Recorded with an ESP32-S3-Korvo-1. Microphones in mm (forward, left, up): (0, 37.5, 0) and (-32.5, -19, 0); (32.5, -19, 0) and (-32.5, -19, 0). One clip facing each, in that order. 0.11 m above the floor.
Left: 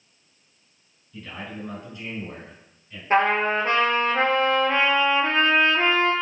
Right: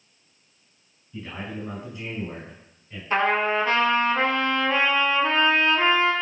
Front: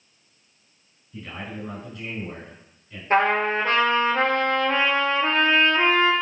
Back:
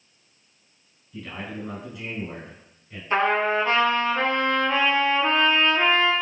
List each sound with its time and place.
1.1 s a man speaking: 70° right, 1.8 m; by 3.0 s 160° right, 1.8 m
3.1 s a trumpet: 30° left, 0.9 m